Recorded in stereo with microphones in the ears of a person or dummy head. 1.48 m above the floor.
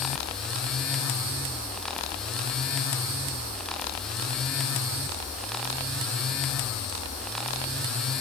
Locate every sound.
Only background noise.